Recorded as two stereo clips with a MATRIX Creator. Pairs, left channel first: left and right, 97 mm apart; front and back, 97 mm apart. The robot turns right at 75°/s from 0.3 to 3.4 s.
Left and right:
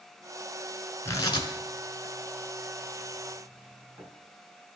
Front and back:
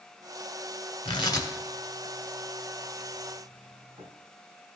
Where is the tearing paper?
25° left, 0.9 m; by 4.1 s 155° right, 0.9 m.